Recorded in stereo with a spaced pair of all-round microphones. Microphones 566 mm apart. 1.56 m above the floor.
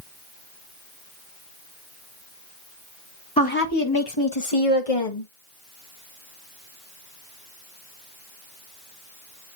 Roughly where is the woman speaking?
Centre.